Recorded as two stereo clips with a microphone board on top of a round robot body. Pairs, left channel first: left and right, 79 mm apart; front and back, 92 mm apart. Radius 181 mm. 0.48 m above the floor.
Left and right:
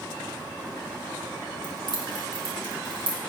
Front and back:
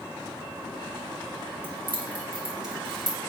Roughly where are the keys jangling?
Behind right.